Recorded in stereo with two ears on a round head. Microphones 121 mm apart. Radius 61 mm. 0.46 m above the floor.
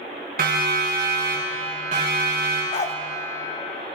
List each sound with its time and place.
0.4 s a siren: 70° right (ahead or behind), 4 m; by 2.6 s 40° right (ahead or behind), 6 m
2.7 s a dog barking: 50° left (ahead or behind), 0.8 m